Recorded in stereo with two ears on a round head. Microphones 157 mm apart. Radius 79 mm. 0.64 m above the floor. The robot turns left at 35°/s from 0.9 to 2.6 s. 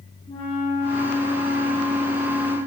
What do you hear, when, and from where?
0.3 s a flute: 100° left, 1.5 m; by 2.6 s 40° left, 1.5 m